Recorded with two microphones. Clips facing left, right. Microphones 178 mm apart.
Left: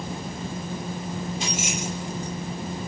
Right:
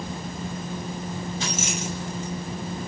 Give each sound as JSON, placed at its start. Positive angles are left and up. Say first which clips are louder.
{"t": 1.4, "sound": "keys jangling", "louder": "even", "side_deg": 15, "distance_m": 7.0}